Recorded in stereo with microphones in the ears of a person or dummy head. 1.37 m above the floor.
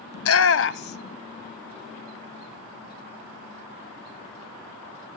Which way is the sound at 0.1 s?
75° left (ahead or behind).